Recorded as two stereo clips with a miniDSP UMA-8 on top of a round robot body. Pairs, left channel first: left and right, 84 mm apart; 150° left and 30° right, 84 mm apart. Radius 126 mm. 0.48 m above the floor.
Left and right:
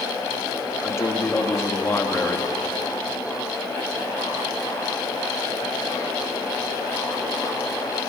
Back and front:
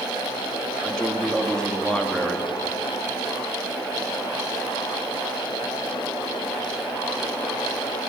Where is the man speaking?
80° left, 1.4 m.